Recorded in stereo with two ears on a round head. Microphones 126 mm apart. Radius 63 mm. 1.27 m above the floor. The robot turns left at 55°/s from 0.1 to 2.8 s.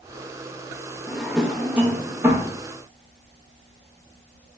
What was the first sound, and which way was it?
A drawer, 5° left (ahead or behind).